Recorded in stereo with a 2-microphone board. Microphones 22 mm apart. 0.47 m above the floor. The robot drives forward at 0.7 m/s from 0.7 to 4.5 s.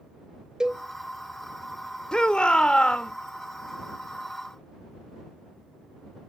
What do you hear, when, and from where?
0.6 s a cowbell: 35° right (ahead or behind), 1.5 m
2.1 s a shout: 40° left (ahead or behind), 1.1 m; by 3.1 s 50° left (ahead or behind), 1.0 m